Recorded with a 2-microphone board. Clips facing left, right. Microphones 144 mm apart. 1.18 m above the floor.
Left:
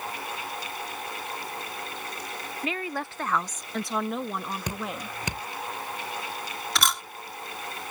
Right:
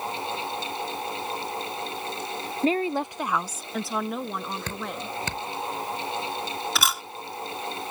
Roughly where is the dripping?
Centre.